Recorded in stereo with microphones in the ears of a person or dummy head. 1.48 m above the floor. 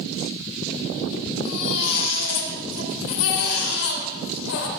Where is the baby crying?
75° left (ahead or behind), 3.5 m.